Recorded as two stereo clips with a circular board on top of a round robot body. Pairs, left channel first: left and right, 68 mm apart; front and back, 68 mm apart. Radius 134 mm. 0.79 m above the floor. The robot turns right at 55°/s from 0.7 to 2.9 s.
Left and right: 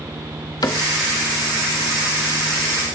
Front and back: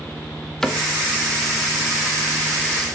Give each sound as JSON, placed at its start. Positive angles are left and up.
{"t": 0.6, "sound": "a cupboard door", "azimuth_deg": 80, "distance_m": 1.9}